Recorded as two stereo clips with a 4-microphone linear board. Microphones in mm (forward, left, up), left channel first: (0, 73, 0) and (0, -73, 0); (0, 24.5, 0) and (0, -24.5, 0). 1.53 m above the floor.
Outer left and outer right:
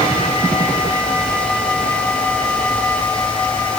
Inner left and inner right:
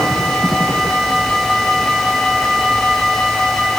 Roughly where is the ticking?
No ticking in this recording.